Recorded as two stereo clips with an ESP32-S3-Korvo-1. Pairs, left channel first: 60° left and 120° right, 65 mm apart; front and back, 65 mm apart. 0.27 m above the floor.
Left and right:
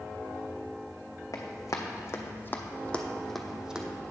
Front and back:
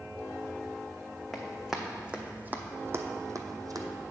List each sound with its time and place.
1.3 s running footsteps: 90° left, 1.2 m; by 3.9 s 165° left, 0.8 m